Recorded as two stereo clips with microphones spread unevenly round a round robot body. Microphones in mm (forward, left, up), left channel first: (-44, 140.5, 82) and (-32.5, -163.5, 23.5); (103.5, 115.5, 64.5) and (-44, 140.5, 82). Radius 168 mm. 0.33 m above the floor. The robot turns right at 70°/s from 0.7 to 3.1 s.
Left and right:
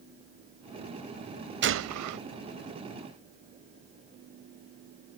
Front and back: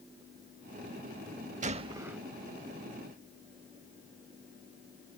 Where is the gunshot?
140° right; by 2.2 s 100° right.